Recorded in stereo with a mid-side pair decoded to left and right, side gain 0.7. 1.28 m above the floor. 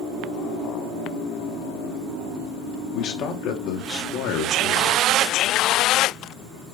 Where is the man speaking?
45° left, 3 m; by 5.0 s 65° left, 3 m.